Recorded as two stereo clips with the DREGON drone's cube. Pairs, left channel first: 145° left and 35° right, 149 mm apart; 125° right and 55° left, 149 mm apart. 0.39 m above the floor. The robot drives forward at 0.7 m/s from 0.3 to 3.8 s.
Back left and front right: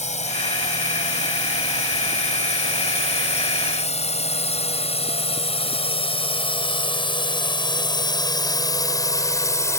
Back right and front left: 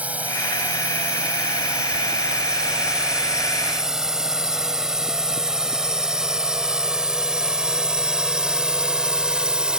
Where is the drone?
135° left; by 9.8 s 130° left.